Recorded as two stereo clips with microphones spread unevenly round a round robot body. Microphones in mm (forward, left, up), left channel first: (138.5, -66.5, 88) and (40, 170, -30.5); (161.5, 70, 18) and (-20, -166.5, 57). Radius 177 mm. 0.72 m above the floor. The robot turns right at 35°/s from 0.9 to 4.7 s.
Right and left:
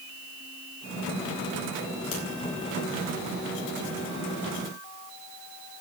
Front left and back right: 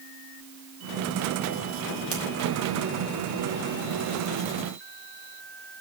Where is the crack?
85° right, 4 m; by 2.2 s 80° right, 4 m.